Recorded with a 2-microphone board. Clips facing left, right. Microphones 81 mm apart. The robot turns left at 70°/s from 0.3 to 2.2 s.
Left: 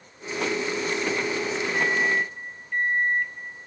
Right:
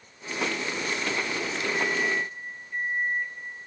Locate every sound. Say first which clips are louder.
1.7 s a microwave: left 3 dB; 105° left, 1.2 m; by 3.7 s 70° left, 1.2 m